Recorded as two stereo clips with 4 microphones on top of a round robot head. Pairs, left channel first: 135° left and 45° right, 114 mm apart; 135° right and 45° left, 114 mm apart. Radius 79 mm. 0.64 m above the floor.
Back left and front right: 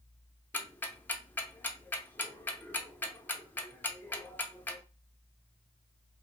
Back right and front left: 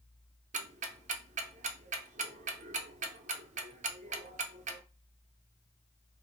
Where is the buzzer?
No buzzer in this recording.